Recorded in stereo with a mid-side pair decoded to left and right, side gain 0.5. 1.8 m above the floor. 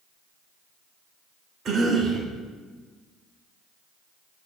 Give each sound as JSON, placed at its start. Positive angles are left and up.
{"t": 1.6, "sound": "a cough", "azimuth_deg": -55, "distance_m": 2.0}